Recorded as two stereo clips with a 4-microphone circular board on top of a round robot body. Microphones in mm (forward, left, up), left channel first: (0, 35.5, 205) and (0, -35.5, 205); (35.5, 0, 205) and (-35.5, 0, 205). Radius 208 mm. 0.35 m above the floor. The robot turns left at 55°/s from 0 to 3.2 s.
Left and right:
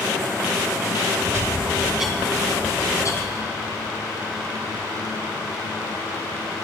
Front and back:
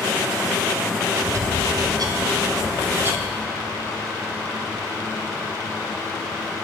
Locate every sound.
1.3 s a bird: 135° right, 1.7 m; by 3.4 s 120° left, 1.7 m